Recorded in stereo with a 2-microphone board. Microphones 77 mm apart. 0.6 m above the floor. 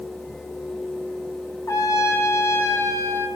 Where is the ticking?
No ticking in this recording.